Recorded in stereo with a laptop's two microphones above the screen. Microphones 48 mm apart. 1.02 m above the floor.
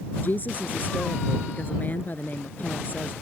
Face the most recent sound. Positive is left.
turn(degrees=40)  # may be behind; listen again after turning